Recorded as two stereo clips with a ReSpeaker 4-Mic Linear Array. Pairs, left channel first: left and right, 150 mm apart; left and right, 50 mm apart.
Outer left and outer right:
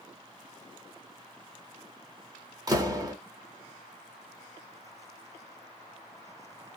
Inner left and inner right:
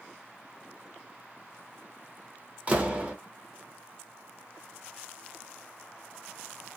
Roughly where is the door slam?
Right.